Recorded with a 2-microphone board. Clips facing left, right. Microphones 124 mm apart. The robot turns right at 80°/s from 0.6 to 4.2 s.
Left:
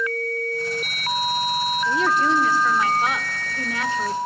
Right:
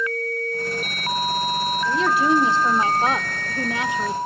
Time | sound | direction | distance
1.9 | a woman speaking | 165° left | 0.9 m